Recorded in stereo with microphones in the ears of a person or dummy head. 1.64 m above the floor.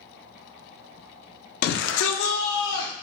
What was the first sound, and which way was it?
A shout, 60° left (ahead or behind).